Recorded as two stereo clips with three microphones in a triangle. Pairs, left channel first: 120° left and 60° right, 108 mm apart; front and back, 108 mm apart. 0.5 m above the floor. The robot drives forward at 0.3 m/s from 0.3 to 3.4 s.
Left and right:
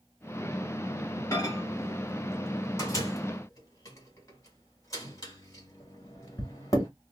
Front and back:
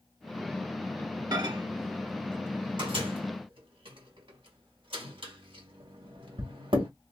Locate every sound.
1.3 s a microwave: 160° left, 0.8 m; by 6.9 s 170° left, 1.3 m